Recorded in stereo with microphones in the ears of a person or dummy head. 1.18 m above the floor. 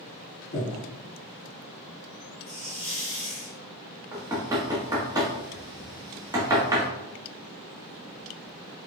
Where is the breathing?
35° left (ahead or behind), 1.8 m.